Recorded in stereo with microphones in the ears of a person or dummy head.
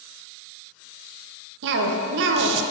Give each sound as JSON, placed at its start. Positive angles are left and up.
{"t": 1.6, "sound": "a cough", "side_deg": -60, "distance_m": 0.8}